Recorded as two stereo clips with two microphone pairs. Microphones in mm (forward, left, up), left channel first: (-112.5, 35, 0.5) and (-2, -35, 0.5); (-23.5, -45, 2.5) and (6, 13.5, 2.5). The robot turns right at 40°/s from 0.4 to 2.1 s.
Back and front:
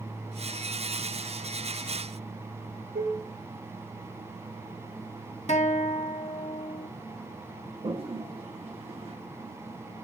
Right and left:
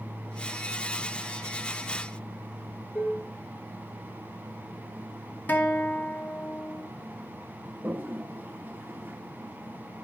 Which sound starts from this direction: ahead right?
Dishes clattering, at 3.0 s.